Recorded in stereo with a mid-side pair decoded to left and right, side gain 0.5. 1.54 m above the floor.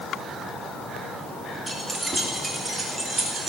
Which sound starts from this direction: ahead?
Keys jangling, at 1.7 s.